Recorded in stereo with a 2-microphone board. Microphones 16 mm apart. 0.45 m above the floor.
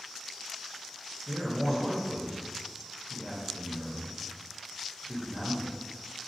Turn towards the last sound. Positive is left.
turn(degrees=-15)  # may be behind; listen again after turning